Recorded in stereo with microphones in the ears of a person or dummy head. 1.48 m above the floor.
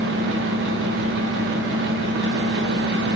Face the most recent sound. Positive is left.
turn(degrees=-60)  # may be behind; listen again after turning